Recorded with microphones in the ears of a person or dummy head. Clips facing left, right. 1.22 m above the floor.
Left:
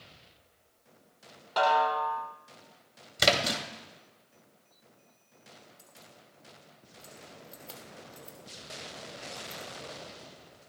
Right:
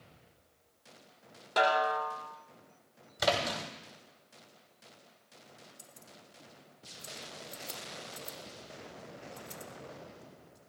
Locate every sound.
1.6 s a snare drum: 30° right (ahead or behind), 2.5 m
3.2 s a splash: 40° left (ahead or behind), 2.5 m
5.8 s keys jangling: 20° right (ahead or behind), 1.7 m